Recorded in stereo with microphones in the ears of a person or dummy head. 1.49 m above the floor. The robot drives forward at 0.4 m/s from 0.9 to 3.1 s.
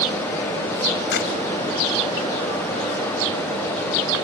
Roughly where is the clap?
Left.